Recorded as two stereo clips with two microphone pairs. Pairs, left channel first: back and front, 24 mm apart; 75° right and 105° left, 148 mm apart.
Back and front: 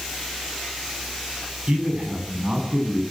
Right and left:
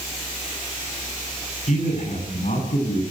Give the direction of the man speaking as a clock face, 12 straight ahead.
1 o'clock.